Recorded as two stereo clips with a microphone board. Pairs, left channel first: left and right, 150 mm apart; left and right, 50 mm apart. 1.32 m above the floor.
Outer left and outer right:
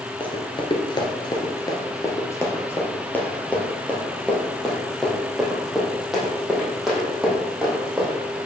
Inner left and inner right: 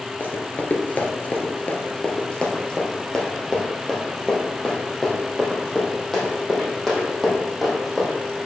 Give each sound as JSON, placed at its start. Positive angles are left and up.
{"t": 0.2, "sound": "running footsteps", "side_deg": 35, "distance_m": 1.5}